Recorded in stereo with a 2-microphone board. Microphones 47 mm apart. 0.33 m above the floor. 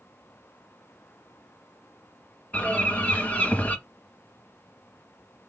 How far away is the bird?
About 0.9 m.